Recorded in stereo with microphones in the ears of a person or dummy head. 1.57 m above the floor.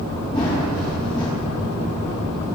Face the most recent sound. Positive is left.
turn(degrees=25)  # may be behind; listen again after turning